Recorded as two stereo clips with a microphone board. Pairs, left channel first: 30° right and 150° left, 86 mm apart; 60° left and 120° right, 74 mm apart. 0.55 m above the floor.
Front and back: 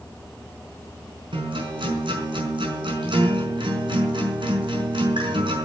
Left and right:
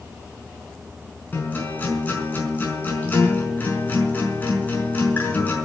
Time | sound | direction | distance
1.3 | a guitar | 125° left | 5.5 m